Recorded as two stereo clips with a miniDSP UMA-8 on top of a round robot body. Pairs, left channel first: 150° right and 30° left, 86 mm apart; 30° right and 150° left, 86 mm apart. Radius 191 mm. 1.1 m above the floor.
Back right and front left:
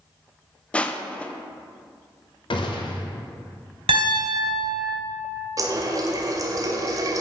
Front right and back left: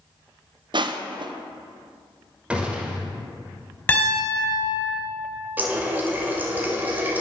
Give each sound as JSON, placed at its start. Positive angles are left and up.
{"t": 0.7, "sound": "crushing", "azimuth_deg": 135, "distance_m": 0.8}
{"t": 2.5, "sound": "a gunshot", "azimuth_deg": -130, "distance_m": 1.0}
{"t": 3.9, "sound": "a piano", "azimuth_deg": 40, "distance_m": 3.0}
{"t": 5.6, "sound": "a running tap", "azimuth_deg": 80, "distance_m": 0.7}